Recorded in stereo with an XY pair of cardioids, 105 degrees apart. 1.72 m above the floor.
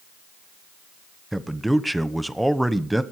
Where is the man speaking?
10° right, 1.2 m.